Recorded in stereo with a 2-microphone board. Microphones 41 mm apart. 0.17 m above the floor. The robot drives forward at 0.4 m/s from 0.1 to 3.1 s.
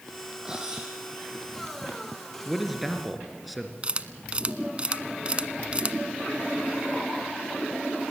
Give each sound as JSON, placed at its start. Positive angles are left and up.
{"t": 0.5, "sound": "cutlery clinking", "side_deg": -15, "distance_m": 4.5}
{"t": 2.5, "sound": "a man speaking", "side_deg": 0, "distance_m": 3.0}
{"t": 3.8, "sound": "a camera shutter", "side_deg": -30, "distance_m": 0.8}